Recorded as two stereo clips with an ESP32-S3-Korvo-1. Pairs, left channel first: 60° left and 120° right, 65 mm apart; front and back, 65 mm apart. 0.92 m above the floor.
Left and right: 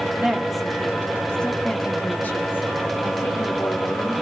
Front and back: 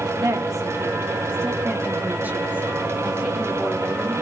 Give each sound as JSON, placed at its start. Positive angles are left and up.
{"t": 0.2, "sound": "a woman speaking", "azimuth_deg": 160, "distance_m": 2.0}